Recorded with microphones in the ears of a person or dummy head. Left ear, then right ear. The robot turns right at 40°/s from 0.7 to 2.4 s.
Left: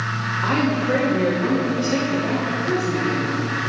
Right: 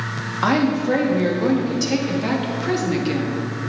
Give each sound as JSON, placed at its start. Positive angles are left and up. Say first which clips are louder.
{"t": 0.4, "sound": "a woman speaking", "louder": "right 3 dB", "azimuth_deg": -120, "distance_m": 1.6}